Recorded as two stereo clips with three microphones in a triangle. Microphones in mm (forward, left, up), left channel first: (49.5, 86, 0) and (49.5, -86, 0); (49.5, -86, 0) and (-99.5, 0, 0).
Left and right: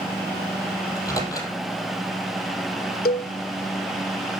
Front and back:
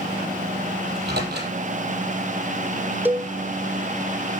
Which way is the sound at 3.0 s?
75° left.